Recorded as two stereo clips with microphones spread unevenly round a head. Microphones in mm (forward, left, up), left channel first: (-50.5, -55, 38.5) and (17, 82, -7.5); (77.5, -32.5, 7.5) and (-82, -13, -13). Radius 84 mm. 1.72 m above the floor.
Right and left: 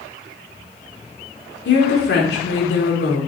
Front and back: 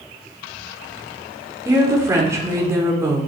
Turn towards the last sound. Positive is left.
turn(degrees=-115)